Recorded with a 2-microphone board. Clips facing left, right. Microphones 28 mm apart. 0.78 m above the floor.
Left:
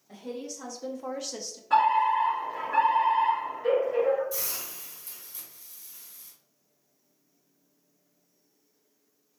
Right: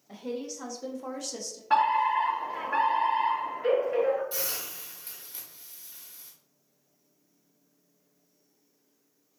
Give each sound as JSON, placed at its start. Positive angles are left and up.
{"t": 0.1, "sound": "a woman speaking", "side_deg": -20, "distance_m": 0.8}
{"t": 1.7, "sound": "a fire alarm", "side_deg": -30, "distance_m": 1.6}
{"t": 4.3, "sound": "a hiss", "side_deg": -45, "distance_m": 1.5}